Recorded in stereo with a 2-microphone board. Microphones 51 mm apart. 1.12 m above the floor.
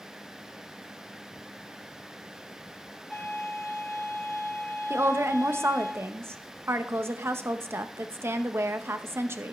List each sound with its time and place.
3.1 s a violin: centre (ahead or behind), 6 m
4.9 s a woman speaking: 55° right (ahead or behind), 0.9 m